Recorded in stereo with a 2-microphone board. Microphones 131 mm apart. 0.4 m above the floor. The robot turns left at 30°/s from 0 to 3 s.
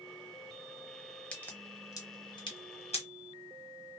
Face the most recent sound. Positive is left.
turn(degrees=50)  # may be behind; listen again after turning